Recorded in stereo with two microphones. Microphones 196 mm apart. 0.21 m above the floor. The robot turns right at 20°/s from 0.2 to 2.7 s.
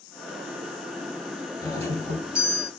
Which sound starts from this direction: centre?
A doorbell, at 1.6 s.